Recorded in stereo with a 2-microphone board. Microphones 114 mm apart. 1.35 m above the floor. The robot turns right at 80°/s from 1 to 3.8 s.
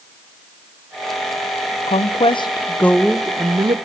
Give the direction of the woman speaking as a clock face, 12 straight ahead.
9 o'clock.